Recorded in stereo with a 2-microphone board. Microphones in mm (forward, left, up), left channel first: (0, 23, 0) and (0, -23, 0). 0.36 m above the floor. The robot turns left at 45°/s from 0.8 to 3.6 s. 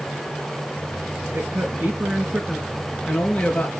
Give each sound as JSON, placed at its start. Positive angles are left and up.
{"t": 1.3, "sound": "a man speaking", "azimuth_deg": -115, "distance_m": 5.5}